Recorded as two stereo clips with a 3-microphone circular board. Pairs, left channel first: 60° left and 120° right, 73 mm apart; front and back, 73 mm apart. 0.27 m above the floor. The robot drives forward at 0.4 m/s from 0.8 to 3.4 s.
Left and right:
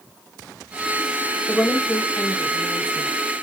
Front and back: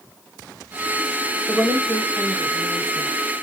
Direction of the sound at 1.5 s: 140° left.